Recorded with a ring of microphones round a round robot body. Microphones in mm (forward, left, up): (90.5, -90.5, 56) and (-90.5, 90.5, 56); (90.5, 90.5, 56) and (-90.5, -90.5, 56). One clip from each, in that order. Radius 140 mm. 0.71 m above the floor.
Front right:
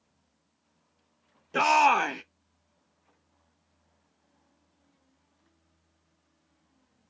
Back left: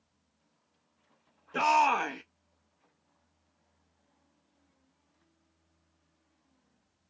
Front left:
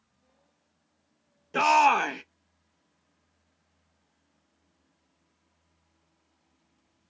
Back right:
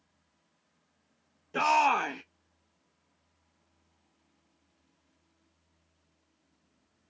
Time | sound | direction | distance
1.5 | a shout | 5° left | 0.5 m